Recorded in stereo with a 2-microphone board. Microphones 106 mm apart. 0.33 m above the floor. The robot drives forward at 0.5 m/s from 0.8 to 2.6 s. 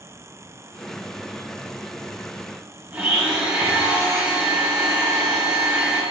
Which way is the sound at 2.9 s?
15° right (ahead or behind).